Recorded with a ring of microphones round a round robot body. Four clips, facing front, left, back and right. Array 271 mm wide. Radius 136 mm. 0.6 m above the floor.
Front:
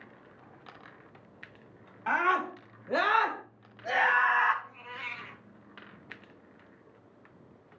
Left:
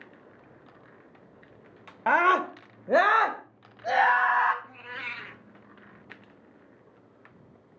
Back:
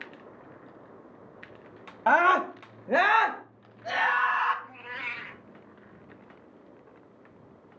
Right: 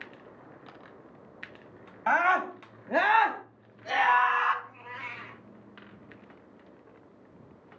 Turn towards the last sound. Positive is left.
turn(degrees=110)